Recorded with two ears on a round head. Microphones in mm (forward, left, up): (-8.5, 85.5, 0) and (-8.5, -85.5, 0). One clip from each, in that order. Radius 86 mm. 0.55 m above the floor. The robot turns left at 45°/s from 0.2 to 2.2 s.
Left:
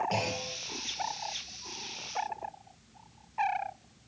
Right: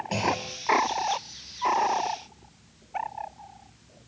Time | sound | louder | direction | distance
0.1 | a clunk | right 5 dB | 20° left (ahead or behind) | 8.5 m